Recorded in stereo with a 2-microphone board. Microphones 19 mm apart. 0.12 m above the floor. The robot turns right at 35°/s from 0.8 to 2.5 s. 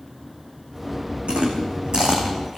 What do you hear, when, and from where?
1.3 s chewing: 65° right (ahead or behind), 3.5 m; by 2.6 s 25° right (ahead or behind), 3.5 m